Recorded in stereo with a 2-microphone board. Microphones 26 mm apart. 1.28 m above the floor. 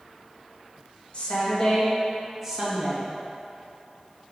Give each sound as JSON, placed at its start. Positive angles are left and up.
{"t": 1.1, "sound": "a woman speaking", "side_deg": 50, "distance_m": 2.0}